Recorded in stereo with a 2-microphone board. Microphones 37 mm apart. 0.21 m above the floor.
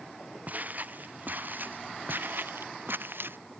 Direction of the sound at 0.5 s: 50° right (ahead or behind).